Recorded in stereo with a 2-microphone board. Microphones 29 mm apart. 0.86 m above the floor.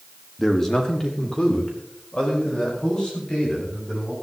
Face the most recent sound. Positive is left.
turn(degrees=35)  # may be behind; listen again after turning